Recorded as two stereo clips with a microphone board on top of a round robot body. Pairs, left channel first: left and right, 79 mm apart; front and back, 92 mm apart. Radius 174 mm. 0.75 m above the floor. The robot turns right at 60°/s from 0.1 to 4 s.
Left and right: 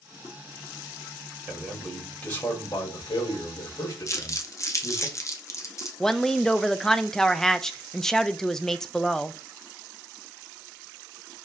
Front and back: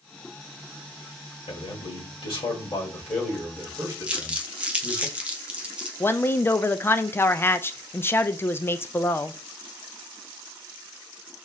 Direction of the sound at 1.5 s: 30° right.